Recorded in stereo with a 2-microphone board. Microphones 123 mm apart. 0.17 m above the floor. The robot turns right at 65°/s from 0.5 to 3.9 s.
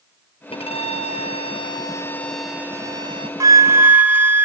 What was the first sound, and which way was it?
A violin, 55° left.